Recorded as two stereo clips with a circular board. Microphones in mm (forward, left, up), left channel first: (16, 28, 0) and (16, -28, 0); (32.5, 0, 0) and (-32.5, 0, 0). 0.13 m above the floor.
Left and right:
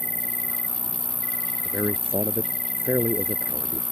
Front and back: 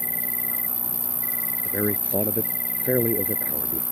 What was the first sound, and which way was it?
An insect, 130° left.